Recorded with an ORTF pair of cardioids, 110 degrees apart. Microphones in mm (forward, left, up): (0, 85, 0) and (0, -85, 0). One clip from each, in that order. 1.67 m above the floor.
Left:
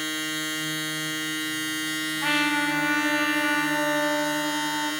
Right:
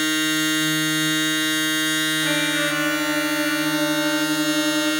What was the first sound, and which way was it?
A machine running, 35° right.